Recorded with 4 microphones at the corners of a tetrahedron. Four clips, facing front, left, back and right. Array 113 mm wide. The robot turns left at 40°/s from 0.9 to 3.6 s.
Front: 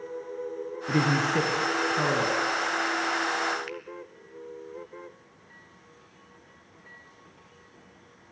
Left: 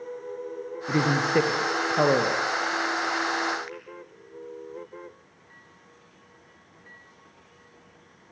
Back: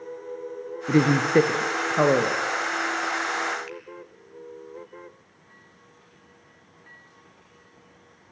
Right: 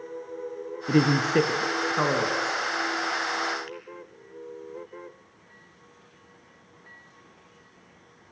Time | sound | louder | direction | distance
0.9 | a woman speaking | right 2 dB, back 5 dB | 150° right | 2 m
3.7 | a finger snap | even, front 1 dB | 15° right | 3.5 m